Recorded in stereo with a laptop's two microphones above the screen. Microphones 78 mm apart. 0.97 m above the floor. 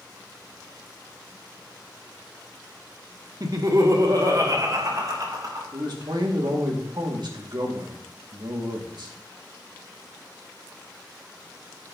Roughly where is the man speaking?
Right.